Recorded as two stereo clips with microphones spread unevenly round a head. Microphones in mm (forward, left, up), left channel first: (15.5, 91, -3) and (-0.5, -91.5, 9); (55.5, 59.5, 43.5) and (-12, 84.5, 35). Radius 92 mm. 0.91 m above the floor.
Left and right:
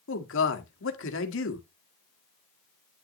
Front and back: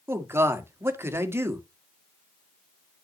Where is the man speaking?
105° left, 1.6 m.